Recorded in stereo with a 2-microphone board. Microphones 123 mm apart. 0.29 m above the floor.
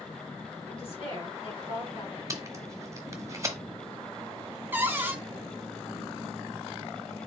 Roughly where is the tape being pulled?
Right.